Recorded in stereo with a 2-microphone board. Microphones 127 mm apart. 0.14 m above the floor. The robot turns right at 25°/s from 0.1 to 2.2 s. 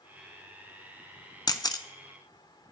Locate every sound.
1.5 s a camera shutter: 30° left (ahead or behind), 0.5 m